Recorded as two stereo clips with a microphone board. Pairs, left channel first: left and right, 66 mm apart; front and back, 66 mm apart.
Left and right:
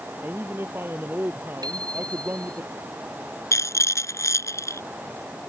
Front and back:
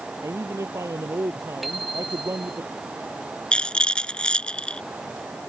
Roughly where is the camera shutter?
No camera shutter in this recording.